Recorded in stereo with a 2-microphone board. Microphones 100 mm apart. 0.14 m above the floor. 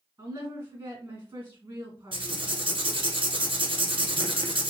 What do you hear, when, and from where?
0.2 s a woman speaking: 25° right (ahead or behind), 1.5 m
2.1 s writing: 60° right (ahead or behind), 0.8 m